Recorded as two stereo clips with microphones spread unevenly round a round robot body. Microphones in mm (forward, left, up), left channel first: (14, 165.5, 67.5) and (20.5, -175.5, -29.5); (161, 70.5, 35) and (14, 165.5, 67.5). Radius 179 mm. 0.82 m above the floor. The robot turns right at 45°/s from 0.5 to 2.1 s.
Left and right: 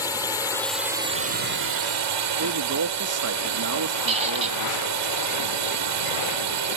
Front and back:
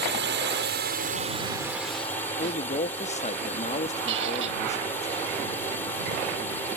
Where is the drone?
Straight behind; by 6.8 s 110° right.